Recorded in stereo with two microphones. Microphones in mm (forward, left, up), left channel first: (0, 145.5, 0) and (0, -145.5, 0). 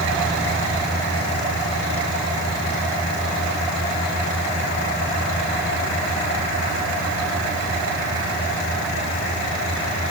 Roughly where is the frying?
I don't hear frying.